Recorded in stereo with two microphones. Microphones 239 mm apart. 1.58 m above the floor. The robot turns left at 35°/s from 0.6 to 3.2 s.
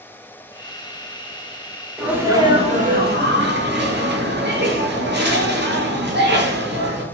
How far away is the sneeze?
About 1.0 m.